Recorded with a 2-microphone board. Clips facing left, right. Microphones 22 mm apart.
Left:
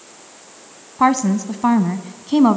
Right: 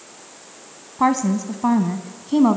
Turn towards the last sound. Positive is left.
turn(degrees=30)  # may be behind; listen again after turning